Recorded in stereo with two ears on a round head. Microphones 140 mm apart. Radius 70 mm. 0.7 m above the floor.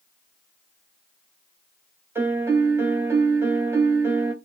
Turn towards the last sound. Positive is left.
turn(degrees=-15)  # may be behind; listen again after turning